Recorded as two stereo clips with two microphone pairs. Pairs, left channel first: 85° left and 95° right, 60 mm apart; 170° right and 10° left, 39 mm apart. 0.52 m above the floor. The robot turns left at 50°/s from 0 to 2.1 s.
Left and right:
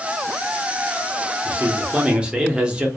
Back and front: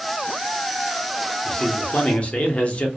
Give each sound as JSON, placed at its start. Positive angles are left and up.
{"t": 1.4, "sound": "a man speaking", "azimuth_deg": -130, "distance_m": 0.7}